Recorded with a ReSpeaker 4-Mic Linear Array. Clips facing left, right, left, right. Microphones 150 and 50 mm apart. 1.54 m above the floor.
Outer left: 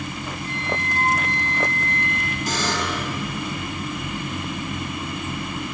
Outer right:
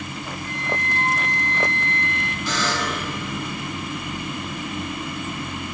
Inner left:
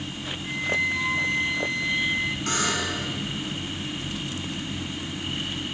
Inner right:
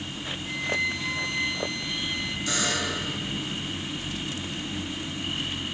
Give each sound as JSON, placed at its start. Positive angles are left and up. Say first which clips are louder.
{"t": 0.4, "sound": "a flute", "louder": "even, inner left 3 dB", "side_deg": 30, "distance_m": 2.0}
{"t": 2.5, "sound": "a buzzer", "louder": "even, inner left 2 dB", "side_deg": 50, "distance_m": 9.0}